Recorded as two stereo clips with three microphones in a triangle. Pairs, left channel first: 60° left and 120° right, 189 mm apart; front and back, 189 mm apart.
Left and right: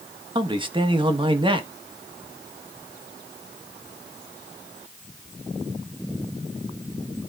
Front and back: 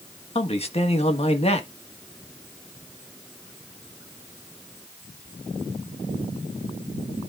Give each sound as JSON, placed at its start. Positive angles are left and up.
{"t": 0.3, "sound": "a man speaking", "azimuth_deg": -55, "distance_m": 1.3}